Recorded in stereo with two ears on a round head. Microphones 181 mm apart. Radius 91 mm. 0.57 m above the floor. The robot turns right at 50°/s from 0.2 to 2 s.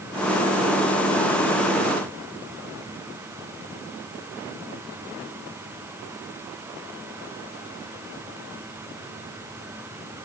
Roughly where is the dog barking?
I don't hear a dog barking.